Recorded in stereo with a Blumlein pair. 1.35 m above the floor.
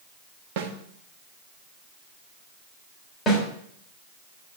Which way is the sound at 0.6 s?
50° right.